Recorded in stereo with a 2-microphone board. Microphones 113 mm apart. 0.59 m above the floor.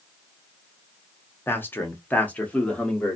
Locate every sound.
1.5 s a man speaking: 20° left (ahead or behind), 0.8 m; by 3.2 s 10° left (ahead or behind), 1.3 m